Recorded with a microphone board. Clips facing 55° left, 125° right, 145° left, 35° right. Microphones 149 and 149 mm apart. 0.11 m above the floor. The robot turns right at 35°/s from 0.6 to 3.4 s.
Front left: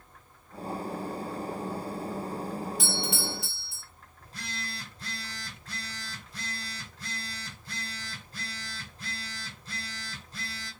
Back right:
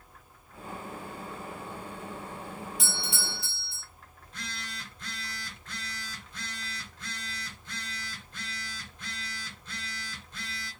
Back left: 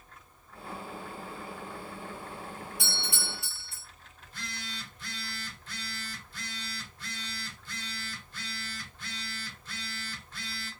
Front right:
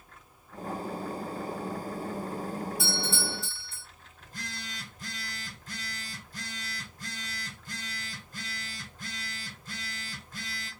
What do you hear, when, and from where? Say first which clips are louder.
2.8 s a doorbell: front left 6 dB, front right 7 dB; 170° right, 2.5 m; by 3.8 s 150° right, 2.5 m
4.2 s a phone buzzing: front left 2 dB, front right 1 dB; 5° left, 1.0 m